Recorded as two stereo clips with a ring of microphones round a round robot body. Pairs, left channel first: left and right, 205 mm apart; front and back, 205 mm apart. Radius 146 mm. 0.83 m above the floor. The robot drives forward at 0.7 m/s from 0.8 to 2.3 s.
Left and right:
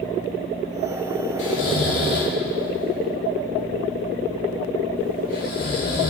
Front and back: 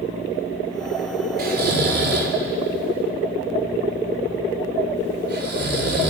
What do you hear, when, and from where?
1.4 s snoring: 140° left, 3 m; by 6.1 s 145° left, 3.5 m